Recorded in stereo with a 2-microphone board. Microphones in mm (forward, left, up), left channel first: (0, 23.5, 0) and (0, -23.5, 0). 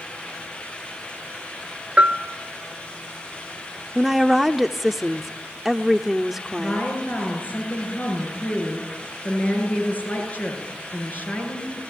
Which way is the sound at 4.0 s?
5° right (ahead or behind).